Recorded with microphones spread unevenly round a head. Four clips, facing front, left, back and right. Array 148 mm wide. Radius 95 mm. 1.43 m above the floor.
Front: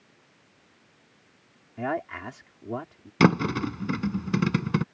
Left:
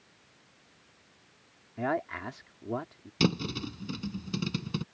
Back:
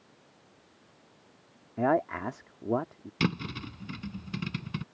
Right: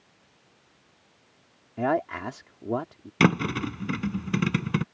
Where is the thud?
35° right.